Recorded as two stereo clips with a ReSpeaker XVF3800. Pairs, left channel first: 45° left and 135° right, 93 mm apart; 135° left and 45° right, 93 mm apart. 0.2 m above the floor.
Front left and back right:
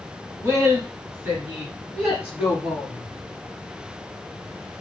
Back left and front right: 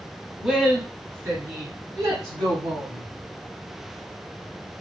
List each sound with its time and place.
0.4 s a woman speaking: 125° right, 1.1 m; by 3.1 s 60° right, 1.8 m